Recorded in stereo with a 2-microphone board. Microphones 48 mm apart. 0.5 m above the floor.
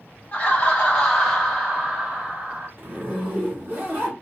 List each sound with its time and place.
0.3 s laughter: 30° left (ahead or behind), 1.4 m; by 2.7 s 30° right (ahead or behind), 1.6 m
2.8 s a zipper: 45° right (ahead or behind), 1.7 m